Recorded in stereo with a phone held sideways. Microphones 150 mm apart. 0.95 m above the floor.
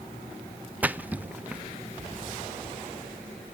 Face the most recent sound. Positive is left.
turn(degrees=-10)  # may be behind; listen again after turning